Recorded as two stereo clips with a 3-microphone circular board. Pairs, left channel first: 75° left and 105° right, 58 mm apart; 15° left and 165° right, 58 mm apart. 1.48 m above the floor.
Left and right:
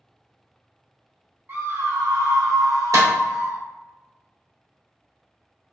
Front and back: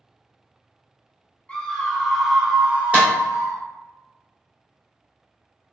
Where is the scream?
55° right, 1.1 m; by 3.6 s 135° right, 1.0 m.